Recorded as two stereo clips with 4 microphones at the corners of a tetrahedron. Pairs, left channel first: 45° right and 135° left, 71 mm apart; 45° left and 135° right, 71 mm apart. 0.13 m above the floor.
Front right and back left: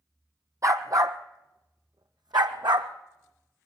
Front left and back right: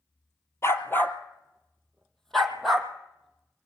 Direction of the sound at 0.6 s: 95° left.